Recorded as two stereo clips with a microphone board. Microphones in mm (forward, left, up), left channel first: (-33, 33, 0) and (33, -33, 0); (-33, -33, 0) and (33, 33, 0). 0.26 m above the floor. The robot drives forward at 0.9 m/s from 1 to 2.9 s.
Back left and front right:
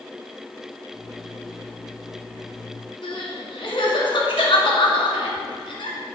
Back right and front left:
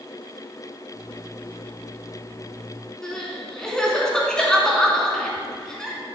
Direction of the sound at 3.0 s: 140° left.